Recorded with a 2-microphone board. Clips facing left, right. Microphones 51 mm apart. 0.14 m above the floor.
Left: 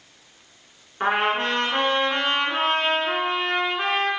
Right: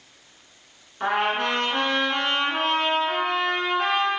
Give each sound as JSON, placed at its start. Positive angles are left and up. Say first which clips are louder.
{"t": 1.0, "sound": "a trumpet", "louder": "left 1 dB", "side_deg": 35, "distance_m": 0.6}